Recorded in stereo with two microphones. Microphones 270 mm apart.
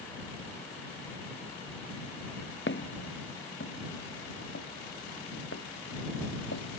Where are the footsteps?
45° left (ahead or behind); by 6.7 s 60° left (ahead or behind).